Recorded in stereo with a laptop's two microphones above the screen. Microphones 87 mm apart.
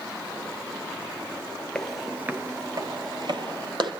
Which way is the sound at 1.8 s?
10° left (ahead or behind).